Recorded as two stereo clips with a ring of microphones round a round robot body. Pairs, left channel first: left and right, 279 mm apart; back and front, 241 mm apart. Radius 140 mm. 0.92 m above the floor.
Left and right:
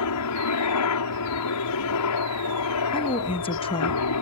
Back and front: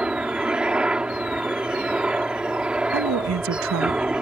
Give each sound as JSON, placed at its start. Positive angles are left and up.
{"t": 0.0, "sound": "a helicopter", "azimuth_deg": 85}
{"t": 2.9, "sound": "a woman speaking", "azimuth_deg": 20}